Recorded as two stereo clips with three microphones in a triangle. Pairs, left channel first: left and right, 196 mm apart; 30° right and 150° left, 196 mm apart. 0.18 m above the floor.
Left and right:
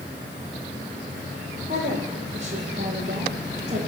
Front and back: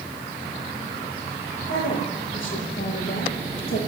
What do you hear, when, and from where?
1.7 s a woman speaking: 35° right, 9 m